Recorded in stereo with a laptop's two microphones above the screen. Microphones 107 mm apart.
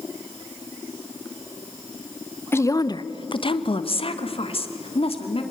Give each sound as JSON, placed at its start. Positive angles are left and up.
{"t": 2.5, "sound": "a woman speaking", "side_deg": 20, "distance_m": 0.7}